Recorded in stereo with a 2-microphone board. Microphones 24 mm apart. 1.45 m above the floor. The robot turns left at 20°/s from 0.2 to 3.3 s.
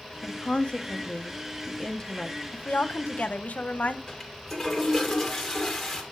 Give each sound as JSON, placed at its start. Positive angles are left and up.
{"t": 0.2, "sound": "a woman speaking", "azimuth_deg": 60, "distance_m": 0.9}
{"t": 2.5, "sound": "a woman speaking", "side_deg": 65, "distance_m": 0.6}
{"t": 4.1, "sound": "a toilet flushing", "side_deg": 15, "distance_m": 2.0}